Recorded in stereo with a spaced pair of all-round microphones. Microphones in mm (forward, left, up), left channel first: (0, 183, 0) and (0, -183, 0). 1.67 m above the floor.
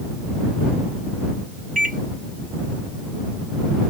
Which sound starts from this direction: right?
A microwave, at 1.8 s.